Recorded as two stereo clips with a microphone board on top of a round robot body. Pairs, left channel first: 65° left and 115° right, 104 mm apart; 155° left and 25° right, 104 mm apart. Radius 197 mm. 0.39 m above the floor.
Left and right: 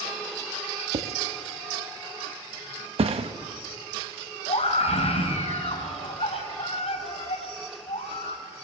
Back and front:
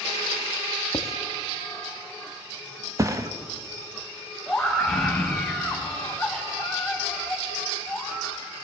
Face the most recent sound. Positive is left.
turn(degrees=70)